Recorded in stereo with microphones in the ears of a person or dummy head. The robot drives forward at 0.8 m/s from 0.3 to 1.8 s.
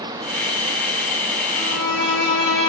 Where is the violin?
60° right (ahead or behind), 9 m; by 2.7 s 65° right (ahead or behind), 9 m.